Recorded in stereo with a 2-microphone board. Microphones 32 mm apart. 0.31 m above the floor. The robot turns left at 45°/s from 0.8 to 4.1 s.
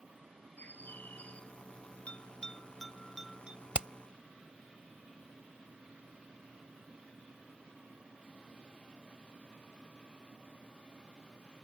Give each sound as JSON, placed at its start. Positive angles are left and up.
{"t": 0.6, "sound": "a bird", "azimuth_deg": 70}
{"t": 2.1, "sound": "a bell", "side_deg": 40}
{"t": 3.7, "sound": "hammering", "side_deg": -35}